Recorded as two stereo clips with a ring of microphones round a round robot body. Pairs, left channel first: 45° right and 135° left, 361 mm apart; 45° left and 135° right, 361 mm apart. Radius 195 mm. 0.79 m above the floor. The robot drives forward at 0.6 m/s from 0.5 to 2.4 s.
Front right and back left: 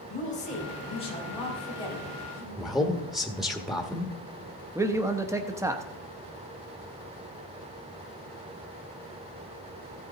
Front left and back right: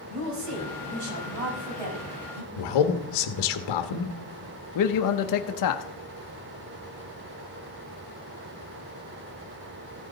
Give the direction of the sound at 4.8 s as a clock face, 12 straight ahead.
10 o'clock.